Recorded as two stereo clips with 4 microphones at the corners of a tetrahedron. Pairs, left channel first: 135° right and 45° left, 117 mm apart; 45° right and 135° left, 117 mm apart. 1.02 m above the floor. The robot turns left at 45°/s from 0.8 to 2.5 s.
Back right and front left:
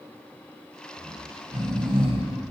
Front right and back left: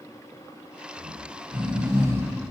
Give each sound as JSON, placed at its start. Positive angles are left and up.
{"t": 1.0, "sound": "snoring", "azimuth_deg": 120, "distance_m": 1.4}